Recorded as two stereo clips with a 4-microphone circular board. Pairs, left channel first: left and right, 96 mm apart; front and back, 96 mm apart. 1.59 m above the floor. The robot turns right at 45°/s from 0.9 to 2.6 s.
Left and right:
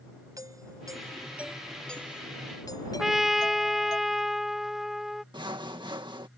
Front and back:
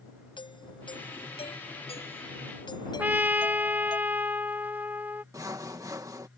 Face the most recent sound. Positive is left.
turn(degrees=-125)